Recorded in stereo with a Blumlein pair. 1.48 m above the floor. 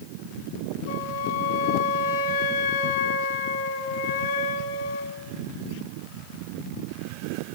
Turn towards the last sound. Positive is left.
turn(degrees=60)